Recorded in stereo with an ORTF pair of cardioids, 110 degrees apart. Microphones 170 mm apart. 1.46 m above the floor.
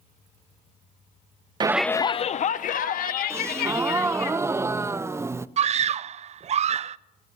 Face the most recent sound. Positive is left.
turn(degrees=-40)